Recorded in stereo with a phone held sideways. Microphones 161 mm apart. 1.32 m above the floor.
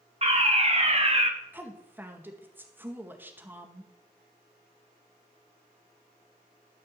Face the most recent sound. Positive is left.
turn(degrees=-10)  # may be behind; listen again after turning